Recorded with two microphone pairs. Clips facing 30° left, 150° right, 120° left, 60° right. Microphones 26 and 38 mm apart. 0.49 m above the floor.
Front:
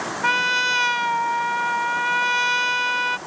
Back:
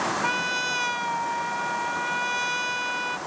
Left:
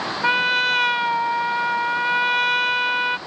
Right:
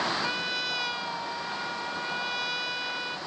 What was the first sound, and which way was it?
A trumpet, 85° left.